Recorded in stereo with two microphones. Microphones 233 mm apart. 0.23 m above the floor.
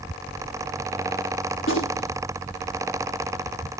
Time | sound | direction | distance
1.6 | a gunshot | 60° left (ahead or behind) | 7 m